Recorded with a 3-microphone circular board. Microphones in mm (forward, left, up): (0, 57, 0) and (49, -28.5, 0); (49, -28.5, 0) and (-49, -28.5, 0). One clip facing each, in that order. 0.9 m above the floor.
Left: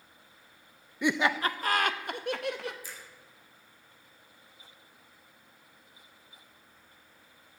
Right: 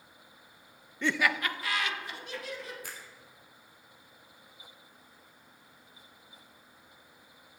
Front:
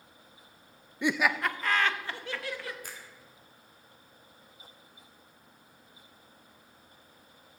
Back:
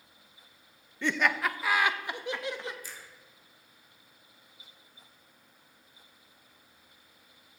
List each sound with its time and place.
1.0 s laughter: 55° left, 0.5 m; by 2.7 s 115° left, 1.3 m
2.8 s a finger snap: 35° right, 2.0 m